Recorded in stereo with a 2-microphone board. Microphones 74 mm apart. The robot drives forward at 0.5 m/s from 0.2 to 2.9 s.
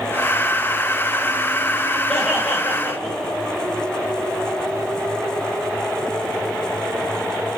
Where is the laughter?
Centre (ahead or behind), 6 m.